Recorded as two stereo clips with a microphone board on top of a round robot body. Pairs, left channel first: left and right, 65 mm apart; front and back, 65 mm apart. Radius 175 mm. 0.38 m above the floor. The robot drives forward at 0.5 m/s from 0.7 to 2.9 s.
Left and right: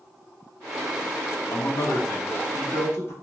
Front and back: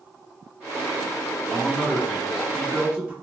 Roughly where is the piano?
No piano in this recording.